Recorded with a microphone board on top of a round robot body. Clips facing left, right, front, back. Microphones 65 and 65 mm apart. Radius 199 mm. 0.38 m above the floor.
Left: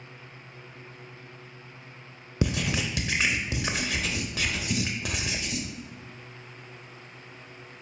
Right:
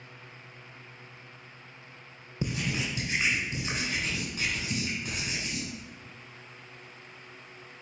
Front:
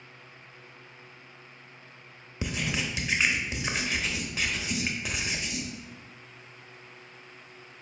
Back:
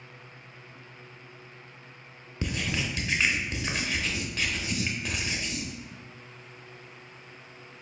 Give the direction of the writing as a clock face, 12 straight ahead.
9 o'clock.